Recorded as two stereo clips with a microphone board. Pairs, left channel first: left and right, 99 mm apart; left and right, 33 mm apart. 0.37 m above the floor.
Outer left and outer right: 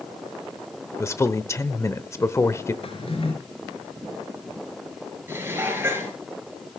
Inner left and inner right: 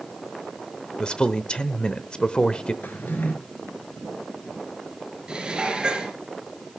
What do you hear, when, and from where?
1.0 s a man speaking: 30° left (ahead or behind), 0.9 m
2.8 s a drawer: 70° left (ahead or behind), 3.5 m
5.3 s dishes clattering: 25° right (ahead or behind), 4 m